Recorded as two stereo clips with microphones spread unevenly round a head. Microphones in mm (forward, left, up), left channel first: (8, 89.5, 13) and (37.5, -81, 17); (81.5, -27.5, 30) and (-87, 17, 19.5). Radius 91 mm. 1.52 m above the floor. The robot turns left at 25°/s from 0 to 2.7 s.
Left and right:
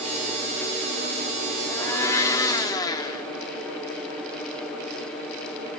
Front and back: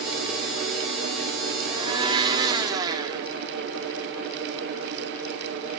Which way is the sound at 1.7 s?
155° left.